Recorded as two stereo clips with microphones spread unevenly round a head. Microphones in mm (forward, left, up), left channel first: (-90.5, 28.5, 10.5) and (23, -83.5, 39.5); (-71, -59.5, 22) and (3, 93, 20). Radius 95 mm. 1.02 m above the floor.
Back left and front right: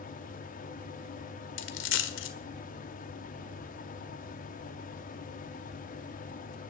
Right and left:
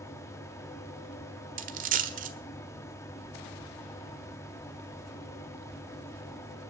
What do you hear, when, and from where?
0.0 s a fan: 170° left, 1.8 m
1.6 s a dropped coin: 105° left, 1.5 m